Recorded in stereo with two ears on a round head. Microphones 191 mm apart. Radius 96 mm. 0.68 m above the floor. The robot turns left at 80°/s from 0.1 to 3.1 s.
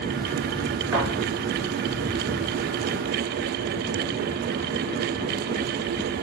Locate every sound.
0.9 s a thud: 70° right (ahead or behind), 5 m; by 1.1 s 80° right, 5 m